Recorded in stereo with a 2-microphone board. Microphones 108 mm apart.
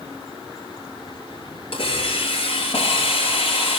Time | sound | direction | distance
1.7 | a hiss | 60° left (ahead or behind) | 5 m